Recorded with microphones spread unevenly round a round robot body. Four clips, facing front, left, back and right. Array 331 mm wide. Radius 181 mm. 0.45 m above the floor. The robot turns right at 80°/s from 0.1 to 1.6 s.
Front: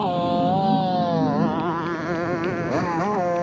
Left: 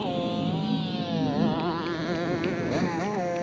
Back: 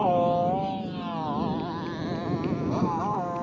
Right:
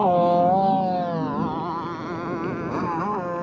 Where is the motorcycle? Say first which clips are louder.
Right 11 dB, front 1 dB; 80° right; by 3.4 s 10° right.